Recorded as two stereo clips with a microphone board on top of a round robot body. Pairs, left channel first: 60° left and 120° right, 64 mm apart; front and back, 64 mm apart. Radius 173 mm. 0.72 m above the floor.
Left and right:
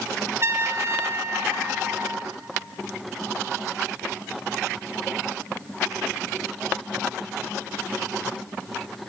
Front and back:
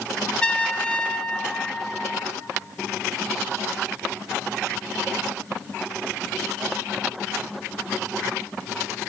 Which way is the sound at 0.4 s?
75° right.